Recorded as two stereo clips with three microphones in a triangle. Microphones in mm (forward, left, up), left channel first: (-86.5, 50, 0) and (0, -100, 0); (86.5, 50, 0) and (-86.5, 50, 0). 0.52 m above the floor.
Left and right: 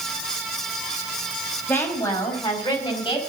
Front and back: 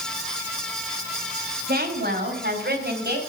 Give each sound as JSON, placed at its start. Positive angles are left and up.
{"t": 1.7, "sound": "a woman speaking", "azimuth_deg": -160, "distance_m": 4.0}